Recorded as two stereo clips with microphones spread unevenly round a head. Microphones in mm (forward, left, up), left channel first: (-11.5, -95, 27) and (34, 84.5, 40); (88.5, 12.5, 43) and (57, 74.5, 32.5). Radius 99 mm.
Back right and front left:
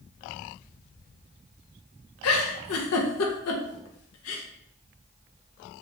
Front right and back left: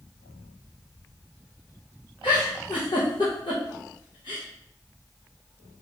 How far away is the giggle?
About 0.5 m.